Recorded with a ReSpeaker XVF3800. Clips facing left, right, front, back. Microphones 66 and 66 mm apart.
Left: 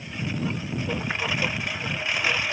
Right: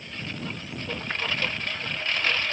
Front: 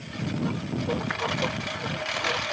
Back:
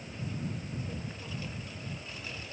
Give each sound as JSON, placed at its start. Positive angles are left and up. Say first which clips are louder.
{"t": 0.0, "sound": "a lawn mower", "louder": "left 6 dB, front 9 dB", "azimuth_deg": 10}